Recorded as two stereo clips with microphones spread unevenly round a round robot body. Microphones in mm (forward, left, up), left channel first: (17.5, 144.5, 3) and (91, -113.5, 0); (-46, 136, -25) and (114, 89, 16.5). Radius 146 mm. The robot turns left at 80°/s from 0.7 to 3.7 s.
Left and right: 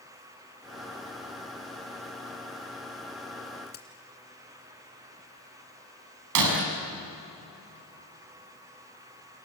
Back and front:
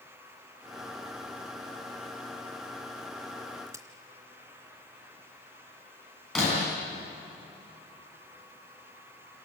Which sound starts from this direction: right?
Breaking glass, at 6.3 s.